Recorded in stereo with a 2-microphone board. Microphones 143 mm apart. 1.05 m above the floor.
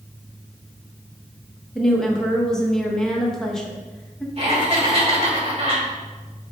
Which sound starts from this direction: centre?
A woman speaking, at 1.8 s.